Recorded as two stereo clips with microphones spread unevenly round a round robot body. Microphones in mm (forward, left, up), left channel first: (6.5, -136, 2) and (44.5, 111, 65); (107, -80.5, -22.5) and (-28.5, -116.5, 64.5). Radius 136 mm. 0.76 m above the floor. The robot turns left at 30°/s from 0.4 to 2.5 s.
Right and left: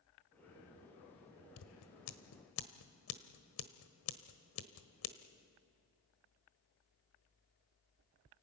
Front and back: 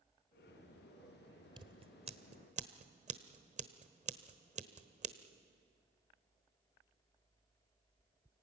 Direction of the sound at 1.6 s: 115° right.